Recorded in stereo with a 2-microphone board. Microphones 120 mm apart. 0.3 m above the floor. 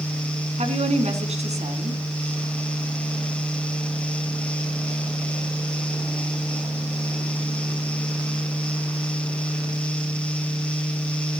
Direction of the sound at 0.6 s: 65° right (ahead or behind).